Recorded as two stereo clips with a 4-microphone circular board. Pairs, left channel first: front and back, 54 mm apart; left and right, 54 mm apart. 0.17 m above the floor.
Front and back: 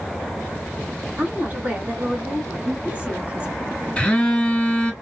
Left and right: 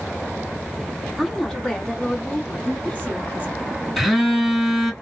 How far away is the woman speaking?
About 1.7 m.